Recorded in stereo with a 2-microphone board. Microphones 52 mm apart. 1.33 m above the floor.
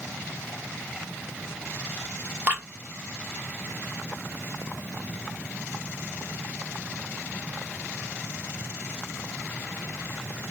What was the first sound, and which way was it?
Dripping, 30° right (ahead or behind).